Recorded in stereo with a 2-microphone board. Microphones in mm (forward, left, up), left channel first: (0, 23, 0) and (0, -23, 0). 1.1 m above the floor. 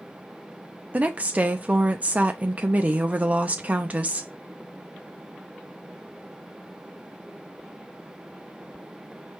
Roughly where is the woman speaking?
Right.